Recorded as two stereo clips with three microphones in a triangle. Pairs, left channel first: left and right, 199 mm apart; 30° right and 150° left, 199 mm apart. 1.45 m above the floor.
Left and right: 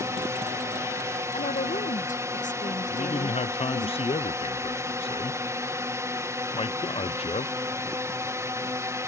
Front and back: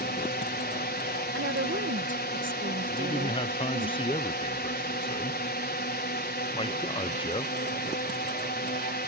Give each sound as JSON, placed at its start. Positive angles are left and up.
{"t": 0.0, "sound": "a drone", "azimuth_deg": -15}
{"t": 1.3, "sound": "a woman speaking", "azimuth_deg": 140}
{"t": 2.9, "sound": "a man speaking", "azimuth_deg": 30}